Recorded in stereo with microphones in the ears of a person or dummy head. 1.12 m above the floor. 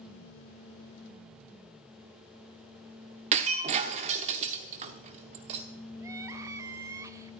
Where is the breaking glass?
40° right (ahead or behind), 1.0 m.